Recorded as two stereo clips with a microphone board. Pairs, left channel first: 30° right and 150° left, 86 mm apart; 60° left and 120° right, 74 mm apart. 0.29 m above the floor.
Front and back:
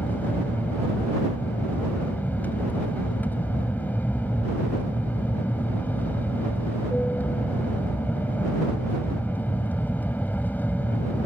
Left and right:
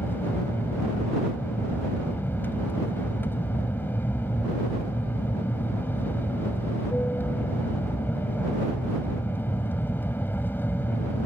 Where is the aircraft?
25° left.